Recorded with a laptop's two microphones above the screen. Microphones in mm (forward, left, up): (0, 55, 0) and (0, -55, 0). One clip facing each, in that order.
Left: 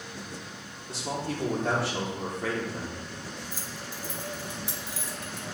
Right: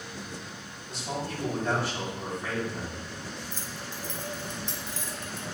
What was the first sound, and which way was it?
A man speaking, 80° left.